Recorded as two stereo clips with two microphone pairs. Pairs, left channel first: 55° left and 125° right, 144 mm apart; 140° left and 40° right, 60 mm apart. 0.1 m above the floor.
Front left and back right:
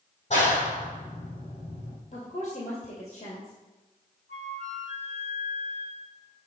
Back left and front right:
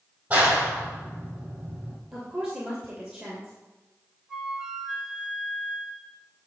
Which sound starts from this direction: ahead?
A clap, at 0.3 s.